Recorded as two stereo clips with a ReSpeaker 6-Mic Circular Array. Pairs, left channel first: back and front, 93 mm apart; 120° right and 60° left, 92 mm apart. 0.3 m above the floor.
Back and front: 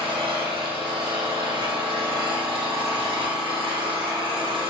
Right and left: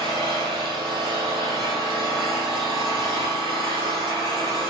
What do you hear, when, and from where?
0.0 s an engine running: 30° left, 3.5 m